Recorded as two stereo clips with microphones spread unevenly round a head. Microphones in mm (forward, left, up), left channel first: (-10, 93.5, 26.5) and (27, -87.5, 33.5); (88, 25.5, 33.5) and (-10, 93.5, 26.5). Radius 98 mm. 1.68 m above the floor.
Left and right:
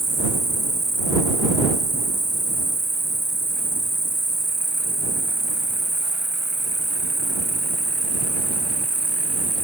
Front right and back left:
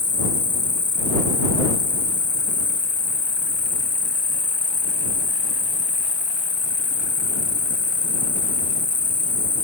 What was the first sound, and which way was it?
An insect, 15° left.